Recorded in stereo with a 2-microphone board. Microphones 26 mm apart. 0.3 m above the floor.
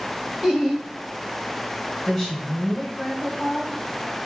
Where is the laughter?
30° right (ahead or behind), 1.6 m.